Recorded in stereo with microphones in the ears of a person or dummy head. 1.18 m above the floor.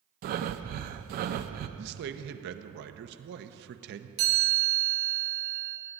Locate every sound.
0.2 s breathing: 50° right (ahead or behind), 0.7 m
1.8 s a man speaking: 55° right (ahead or behind), 0.9 m
4.2 s a chime: 60° right (ahead or behind), 3.5 m